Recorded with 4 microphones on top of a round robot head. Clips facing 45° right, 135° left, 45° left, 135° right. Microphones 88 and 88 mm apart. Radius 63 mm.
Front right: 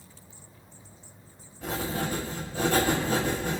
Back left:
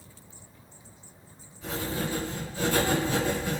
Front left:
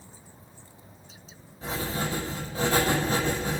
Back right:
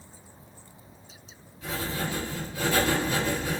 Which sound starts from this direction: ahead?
Writing, at 1.6 s.